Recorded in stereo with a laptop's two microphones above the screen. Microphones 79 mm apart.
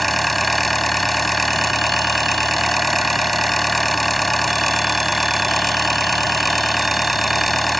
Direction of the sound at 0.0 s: Centre (ahead or behind).